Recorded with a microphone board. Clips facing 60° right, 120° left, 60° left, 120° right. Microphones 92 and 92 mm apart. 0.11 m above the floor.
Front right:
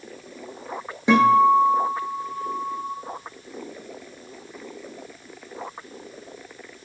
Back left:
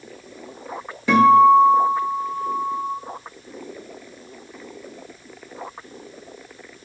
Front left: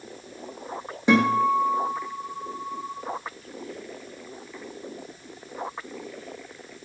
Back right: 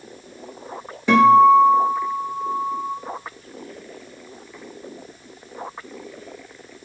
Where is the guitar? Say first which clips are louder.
Back left 4 dB, back right 9 dB; straight ahead, 0.8 m.